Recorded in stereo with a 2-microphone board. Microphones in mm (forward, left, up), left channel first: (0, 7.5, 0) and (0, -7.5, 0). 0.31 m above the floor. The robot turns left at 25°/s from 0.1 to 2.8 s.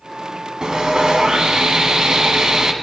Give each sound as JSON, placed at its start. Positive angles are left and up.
{"t": 0.6, "sound": "sawing", "azimuth_deg": -65, "distance_m": 1.3}